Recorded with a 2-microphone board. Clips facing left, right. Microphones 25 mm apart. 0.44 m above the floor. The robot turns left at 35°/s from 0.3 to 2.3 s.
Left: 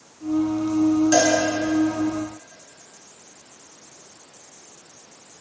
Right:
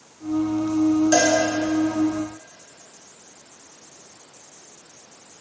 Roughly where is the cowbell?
Centre.